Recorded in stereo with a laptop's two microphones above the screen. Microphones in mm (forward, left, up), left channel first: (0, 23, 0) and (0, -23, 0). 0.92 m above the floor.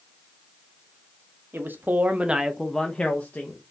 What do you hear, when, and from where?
1.5 s a man speaking: 50° right (ahead or behind), 0.7 m; by 3.6 s 40° left (ahead or behind), 0.8 m